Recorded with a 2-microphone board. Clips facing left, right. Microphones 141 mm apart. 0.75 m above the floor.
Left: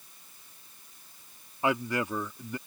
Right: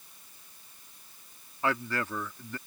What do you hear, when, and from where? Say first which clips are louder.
1.6 s a man speaking: left 3 dB; 15° left (ahead or behind)